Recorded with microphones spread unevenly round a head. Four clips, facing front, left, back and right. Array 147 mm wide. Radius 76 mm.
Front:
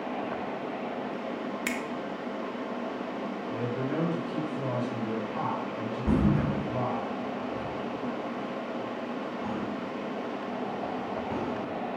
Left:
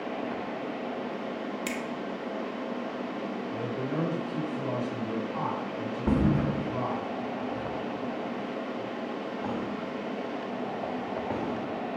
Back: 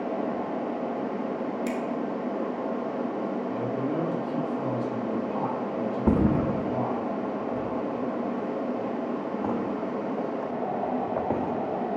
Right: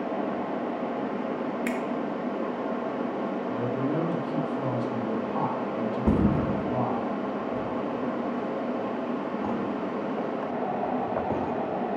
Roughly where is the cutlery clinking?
I don't hear cutlery clinking.